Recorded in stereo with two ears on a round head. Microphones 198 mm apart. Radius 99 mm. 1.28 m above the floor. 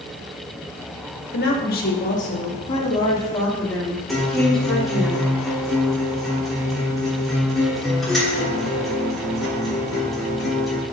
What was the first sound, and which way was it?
A woman speaking, 55° left (ahead or behind).